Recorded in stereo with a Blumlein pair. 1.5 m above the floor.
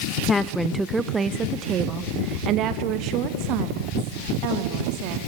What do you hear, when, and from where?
0.3 s a woman speaking: 15° left, 0.7 m; by 5.2 s 45° right, 3.5 m